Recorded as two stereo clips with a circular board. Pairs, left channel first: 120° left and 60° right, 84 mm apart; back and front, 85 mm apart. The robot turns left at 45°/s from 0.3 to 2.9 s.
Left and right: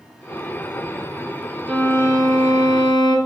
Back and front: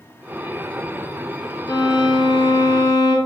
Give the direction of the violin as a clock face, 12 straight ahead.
5 o'clock.